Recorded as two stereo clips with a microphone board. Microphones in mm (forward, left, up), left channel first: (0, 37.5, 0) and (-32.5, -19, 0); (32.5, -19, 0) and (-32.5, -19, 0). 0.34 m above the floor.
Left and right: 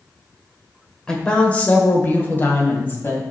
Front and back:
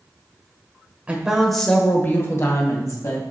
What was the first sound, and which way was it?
A woman speaking, 130° left.